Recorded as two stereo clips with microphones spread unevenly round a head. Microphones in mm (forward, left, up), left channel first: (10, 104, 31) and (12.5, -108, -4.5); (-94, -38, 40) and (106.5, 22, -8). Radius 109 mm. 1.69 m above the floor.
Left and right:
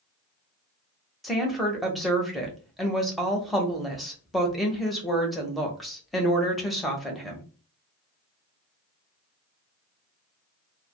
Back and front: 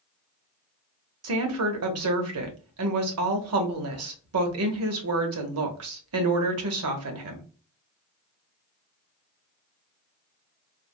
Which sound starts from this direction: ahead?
A woman speaking, at 1.2 s.